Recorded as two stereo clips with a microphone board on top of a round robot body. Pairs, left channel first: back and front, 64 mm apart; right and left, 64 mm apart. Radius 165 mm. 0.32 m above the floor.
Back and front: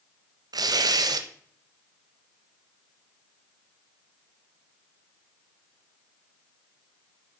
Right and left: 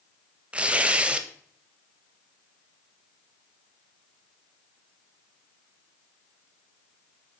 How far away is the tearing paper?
About 0.7 m.